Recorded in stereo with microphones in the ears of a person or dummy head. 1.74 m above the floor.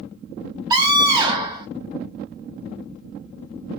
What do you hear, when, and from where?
0.7 s a scream: 20° right (ahead or behind), 0.9 m